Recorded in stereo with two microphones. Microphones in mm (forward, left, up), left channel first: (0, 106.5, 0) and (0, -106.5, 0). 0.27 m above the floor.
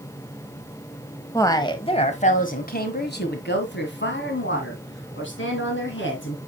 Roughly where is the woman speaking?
Centre.